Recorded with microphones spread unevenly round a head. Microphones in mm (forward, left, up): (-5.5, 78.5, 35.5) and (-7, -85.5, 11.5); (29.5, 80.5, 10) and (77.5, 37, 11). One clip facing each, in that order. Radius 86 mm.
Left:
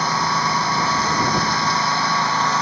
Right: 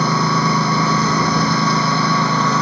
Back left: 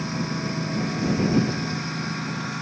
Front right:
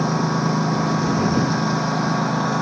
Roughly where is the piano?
I don't hear a piano.